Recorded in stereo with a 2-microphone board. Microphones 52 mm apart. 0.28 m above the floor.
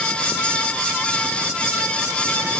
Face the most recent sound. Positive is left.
No sound to turn to.